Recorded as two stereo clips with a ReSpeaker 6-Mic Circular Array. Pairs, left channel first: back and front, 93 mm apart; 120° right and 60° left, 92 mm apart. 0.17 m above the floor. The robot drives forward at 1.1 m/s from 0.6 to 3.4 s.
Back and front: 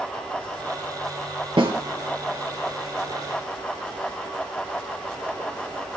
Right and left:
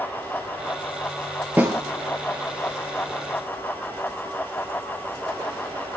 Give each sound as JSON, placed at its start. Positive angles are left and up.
{"t": 1.6, "sound": "a snare drum", "azimuth_deg": -10, "distance_m": 3.0}